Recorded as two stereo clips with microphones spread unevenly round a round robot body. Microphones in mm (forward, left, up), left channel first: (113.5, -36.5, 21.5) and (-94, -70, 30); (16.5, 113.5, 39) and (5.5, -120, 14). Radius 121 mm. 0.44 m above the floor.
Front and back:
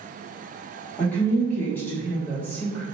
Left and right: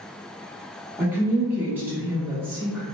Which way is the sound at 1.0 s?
50° right.